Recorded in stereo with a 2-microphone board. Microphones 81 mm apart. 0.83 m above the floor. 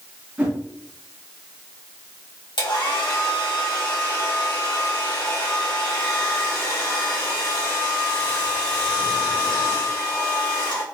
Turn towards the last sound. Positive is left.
turn(degrees=70)  # may be behind; listen again after turning